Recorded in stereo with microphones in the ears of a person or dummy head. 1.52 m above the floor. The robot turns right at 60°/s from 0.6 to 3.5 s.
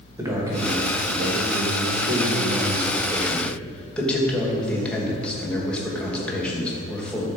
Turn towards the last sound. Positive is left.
turn(degrees=5)